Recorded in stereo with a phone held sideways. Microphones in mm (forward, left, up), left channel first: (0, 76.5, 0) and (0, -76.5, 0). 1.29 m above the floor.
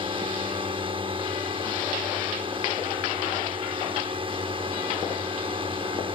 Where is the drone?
35° right (ahead or behind).